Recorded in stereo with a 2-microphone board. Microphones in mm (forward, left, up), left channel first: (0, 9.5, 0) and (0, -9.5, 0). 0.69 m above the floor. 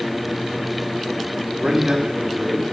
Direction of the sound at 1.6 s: 55° right (ahead or behind).